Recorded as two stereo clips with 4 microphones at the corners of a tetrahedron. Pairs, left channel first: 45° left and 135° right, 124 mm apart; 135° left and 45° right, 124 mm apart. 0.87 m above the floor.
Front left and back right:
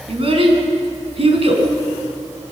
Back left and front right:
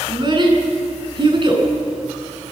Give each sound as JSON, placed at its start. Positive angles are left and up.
{"t": 0.1, "sound": "a child speaking", "azimuth_deg": -95, "distance_m": 5.0}